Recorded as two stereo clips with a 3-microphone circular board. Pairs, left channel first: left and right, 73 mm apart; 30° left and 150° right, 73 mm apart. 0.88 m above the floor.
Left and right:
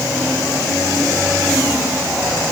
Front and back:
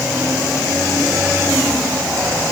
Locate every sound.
Only background noise.